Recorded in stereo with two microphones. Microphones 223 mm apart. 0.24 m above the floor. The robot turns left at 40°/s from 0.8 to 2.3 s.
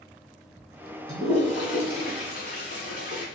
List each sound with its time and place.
1.1 s a toilet flushing: 25° left (ahead or behind), 1.1 m; by 3.2 s 50° left (ahead or behind), 1.1 m